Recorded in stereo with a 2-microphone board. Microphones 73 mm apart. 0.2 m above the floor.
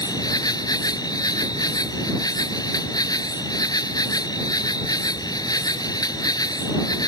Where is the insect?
60° left (ahead or behind).